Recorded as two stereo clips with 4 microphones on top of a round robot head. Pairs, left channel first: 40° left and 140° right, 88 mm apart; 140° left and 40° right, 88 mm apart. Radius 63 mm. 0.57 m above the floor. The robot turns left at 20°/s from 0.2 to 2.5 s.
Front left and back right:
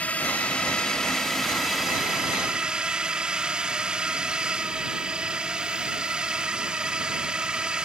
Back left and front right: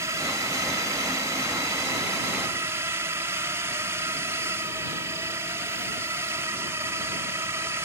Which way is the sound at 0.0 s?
25° right.